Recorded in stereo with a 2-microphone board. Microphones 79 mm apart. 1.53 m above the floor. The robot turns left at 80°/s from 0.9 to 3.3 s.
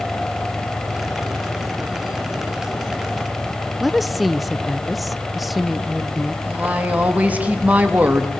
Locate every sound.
3.8 s a woman speaking: centre (ahead or behind), 0.8 m
6.5 s a woman speaking: 20° right (ahead or behind), 3 m